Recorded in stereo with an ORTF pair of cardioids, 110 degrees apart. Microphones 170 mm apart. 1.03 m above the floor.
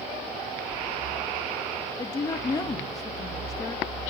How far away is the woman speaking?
About 0.9 m.